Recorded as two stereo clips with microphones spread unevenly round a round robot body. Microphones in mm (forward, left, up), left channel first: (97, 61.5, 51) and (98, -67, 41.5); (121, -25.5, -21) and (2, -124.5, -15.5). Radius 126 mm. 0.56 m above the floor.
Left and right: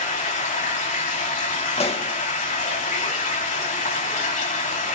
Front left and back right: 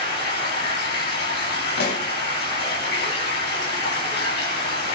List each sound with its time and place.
0.0 s running water: 85° left, 3.5 m
1.8 s a pop: 55° left, 2.5 m